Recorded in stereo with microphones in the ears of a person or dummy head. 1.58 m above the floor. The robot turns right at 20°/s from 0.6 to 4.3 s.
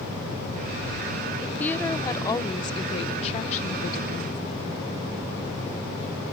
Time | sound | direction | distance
1.4 | a woman speaking | 5° left | ?